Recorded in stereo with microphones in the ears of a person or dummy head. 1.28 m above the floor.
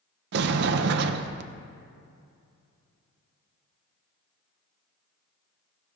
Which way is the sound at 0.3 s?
60° right (ahead or behind).